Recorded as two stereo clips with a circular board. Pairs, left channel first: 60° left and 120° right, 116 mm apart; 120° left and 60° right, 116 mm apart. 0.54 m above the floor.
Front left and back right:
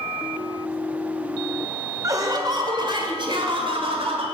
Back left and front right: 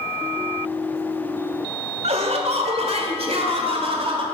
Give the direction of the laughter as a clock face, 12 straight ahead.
2 o'clock.